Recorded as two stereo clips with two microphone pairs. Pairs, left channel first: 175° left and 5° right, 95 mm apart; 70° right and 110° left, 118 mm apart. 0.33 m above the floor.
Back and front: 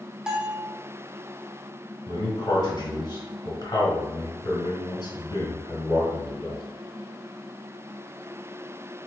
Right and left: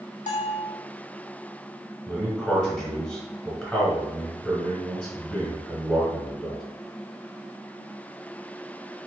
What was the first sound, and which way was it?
A bell, 90° right.